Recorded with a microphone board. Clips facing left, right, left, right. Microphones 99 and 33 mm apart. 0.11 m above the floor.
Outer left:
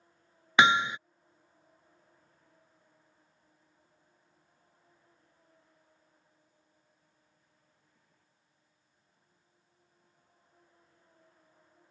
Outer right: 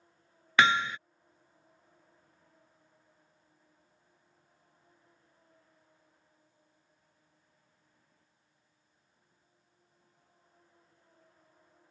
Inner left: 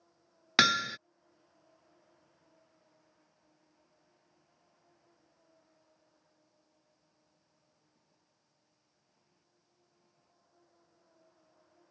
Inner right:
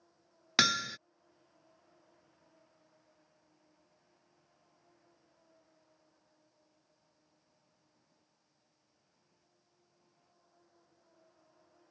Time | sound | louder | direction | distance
0.6 | hammering | outer left 2 dB, inner left 3 dB | 20° left (ahead or behind) | ?